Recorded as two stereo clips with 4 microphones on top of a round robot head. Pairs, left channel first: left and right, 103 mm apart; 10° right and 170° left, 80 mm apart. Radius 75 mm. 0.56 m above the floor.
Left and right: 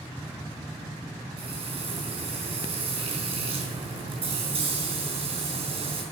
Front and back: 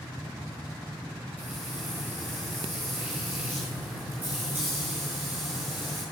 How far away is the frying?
About 4 m.